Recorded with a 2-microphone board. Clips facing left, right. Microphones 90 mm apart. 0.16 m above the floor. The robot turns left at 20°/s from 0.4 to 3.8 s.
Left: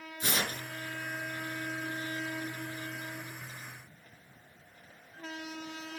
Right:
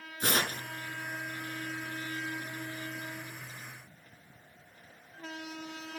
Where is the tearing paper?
55° right (ahead or behind), 1.7 m.